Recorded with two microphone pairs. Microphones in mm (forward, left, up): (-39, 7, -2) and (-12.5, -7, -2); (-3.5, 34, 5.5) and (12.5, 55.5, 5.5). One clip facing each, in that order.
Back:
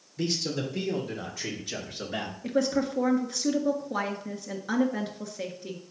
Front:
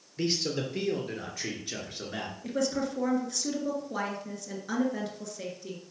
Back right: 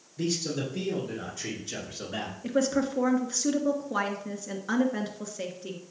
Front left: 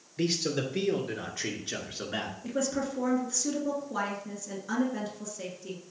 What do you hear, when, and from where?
0.2 s a man speaking: 40° left, 2.5 m; by 2.3 s 85° left, 1.9 m
2.4 s a woman speaking: 160° right, 1.4 m